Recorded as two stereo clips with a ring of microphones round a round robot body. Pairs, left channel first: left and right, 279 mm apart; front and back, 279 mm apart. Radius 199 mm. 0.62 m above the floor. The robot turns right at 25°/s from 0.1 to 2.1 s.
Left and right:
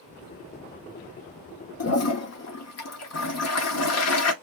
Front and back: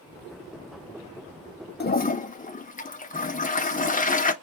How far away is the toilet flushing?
About 1.3 m.